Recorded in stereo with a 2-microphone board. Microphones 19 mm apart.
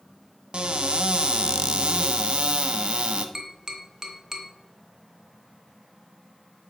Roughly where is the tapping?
Centre.